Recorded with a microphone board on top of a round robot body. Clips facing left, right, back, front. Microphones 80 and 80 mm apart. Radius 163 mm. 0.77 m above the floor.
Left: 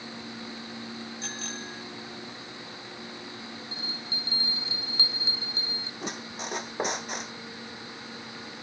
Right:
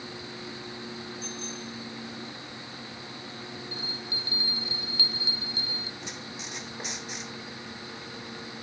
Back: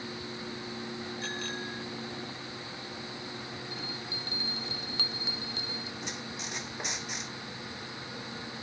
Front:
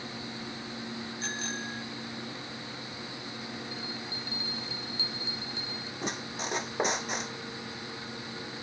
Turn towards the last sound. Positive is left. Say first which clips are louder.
# left 4 dB, front 4 dB
turn(degrees=50)